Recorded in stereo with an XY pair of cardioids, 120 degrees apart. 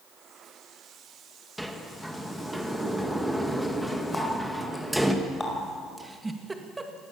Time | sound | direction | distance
1.6 | a sliding door | straight ahead | 2 m
4.1 | a running tap | 20° left | 5 m
6.0 | a giggle | 15° right | 2 m